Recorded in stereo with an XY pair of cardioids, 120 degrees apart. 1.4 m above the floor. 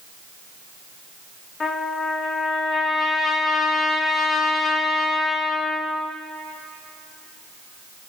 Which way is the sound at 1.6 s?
40° left.